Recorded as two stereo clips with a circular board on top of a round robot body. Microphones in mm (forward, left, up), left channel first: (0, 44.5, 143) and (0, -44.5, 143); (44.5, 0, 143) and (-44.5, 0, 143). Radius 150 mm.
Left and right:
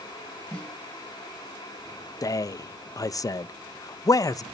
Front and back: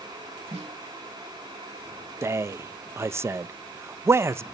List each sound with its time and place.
0.5 s a snare drum: 170° left, 5 m
2.2 s a man speaking: 125° left, 0.5 m